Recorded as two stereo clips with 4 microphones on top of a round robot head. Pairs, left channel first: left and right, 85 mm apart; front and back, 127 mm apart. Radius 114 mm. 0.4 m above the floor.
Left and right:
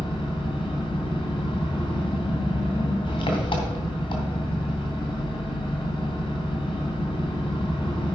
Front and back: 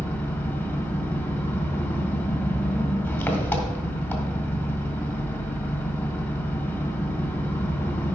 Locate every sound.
0.0 s an engine running: 75° left, 2.5 m